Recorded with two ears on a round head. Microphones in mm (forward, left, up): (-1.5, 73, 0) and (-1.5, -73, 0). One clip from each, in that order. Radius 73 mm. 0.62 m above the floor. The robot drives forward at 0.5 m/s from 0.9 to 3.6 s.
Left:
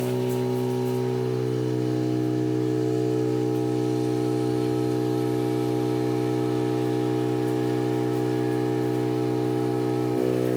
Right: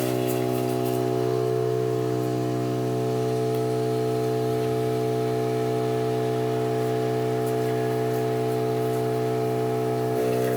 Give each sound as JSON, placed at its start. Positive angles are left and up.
{"t": 0.0, "sound": "an engine running", "side_deg": -70, "distance_m": 2.5}